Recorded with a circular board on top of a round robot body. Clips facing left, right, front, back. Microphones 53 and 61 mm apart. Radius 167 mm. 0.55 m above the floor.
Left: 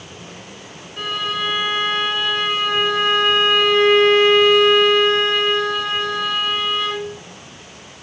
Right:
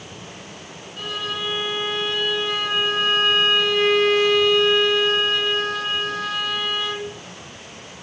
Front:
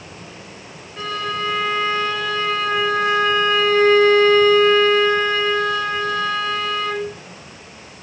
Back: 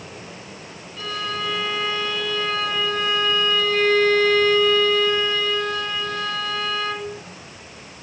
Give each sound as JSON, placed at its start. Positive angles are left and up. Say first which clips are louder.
{"t": 1.0, "sound": "a violin", "louder": "left 5 dB, front 4 dB", "azimuth_deg": 55, "distance_m": 1.0}